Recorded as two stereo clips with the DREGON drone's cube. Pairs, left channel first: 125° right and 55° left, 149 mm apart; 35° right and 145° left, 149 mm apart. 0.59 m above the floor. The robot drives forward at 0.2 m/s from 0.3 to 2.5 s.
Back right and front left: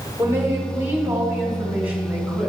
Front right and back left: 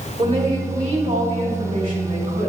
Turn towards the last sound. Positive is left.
turn(degrees=135)